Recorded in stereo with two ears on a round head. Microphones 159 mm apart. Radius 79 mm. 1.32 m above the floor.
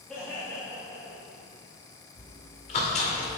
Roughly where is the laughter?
Centre.